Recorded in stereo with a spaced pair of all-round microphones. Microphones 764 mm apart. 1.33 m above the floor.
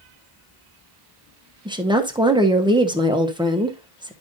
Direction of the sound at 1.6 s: 5° right (ahead or behind).